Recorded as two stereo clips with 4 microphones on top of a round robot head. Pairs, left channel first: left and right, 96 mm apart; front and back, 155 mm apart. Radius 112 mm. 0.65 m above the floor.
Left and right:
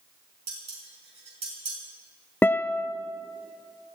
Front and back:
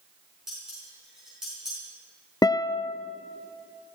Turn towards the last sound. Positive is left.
turn(degrees=40)